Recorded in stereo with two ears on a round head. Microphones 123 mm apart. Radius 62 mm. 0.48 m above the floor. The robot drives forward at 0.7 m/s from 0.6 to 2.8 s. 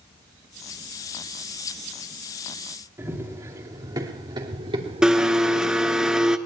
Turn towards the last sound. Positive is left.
turn(degrees=-5)  # may be behind; listen again after turning